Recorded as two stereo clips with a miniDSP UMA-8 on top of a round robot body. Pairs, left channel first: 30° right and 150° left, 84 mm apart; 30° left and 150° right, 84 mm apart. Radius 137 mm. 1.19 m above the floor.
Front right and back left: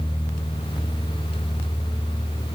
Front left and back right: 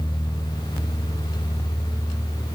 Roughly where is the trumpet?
I don't hear a trumpet.